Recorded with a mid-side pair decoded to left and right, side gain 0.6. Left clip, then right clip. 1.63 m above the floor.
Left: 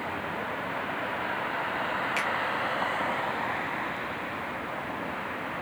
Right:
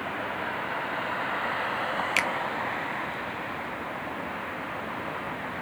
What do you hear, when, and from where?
2.2 s a finger snap: 50° right, 0.8 m